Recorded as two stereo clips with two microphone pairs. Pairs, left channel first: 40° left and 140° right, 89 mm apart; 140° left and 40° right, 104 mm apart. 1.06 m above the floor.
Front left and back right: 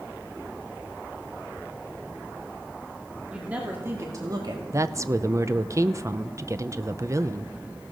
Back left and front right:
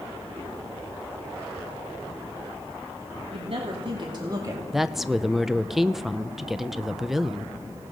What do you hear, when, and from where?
3.3 s a woman speaking: 60° right, 2.5 m; by 4.6 s 105° right, 2 m
4.7 s a woman speaking: 120° right, 0.6 m